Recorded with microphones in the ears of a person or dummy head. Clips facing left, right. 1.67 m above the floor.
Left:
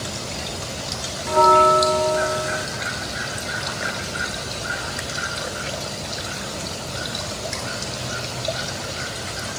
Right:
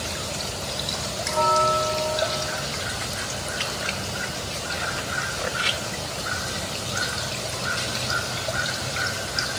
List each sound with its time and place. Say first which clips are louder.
1.2 s a bell: left 7 dB; 65° left (ahead or behind)